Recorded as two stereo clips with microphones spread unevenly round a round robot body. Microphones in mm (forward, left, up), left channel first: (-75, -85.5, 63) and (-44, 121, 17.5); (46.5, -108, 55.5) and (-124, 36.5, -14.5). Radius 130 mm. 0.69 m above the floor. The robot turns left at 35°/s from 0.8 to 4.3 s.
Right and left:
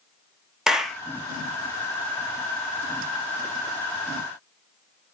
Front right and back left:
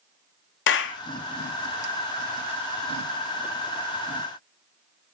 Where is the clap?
5° left, 1.1 m; by 1.0 s 5° right, 1.1 m.